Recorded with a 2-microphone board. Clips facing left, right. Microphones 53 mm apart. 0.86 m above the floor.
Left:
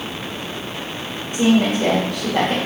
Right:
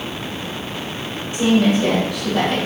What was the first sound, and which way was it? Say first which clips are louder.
A woman speaking: even; 50° left (ahead or behind).